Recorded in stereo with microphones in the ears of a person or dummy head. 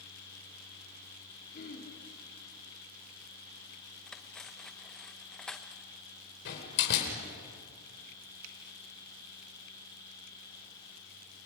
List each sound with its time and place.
1.5 s throat clearing: 45° left (ahead or behind), 4 m
4.1 s cutlery clinking: 10° left (ahead or behind), 0.7 m
6.5 s a door slam: 65° left (ahead or behind), 4.5 m
8.4 s a finger snap: 75° right (ahead or behind), 2.5 m